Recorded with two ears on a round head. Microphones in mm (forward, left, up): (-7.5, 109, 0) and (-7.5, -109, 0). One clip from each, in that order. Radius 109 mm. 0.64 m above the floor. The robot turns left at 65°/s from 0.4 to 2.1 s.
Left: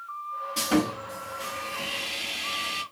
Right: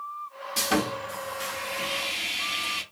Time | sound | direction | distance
0.6 | sawing | 15° right (ahead or behind) | 1.2 m